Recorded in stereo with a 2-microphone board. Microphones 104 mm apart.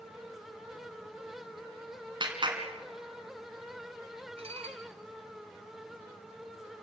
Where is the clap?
45° right (ahead or behind), 2.5 m.